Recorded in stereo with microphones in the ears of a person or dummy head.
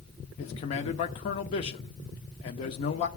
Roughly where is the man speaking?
Left.